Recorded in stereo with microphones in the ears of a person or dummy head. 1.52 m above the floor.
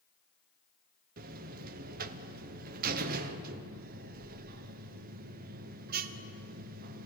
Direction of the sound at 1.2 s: 45° right (ahead or behind).